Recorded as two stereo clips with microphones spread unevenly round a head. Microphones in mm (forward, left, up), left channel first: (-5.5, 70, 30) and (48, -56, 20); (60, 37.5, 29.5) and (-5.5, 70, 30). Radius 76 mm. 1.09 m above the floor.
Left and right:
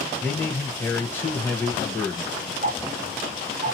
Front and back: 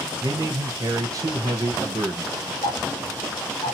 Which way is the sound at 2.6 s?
30° right.